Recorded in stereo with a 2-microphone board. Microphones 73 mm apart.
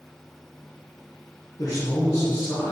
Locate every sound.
1.6 s a man speaking: 55° left (ahead or behind), 2.5 m